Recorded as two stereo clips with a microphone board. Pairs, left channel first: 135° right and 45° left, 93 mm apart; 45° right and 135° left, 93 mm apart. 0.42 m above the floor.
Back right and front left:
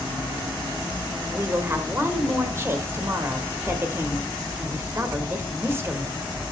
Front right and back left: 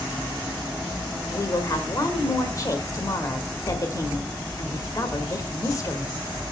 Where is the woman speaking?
10° right, 1.8 m.